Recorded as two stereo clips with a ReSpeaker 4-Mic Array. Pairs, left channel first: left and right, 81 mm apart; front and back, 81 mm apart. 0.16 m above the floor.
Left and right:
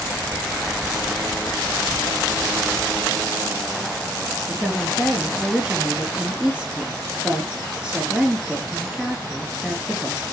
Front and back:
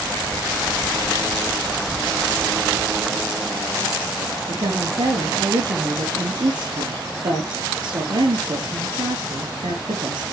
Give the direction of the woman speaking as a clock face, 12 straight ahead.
6 o'clock.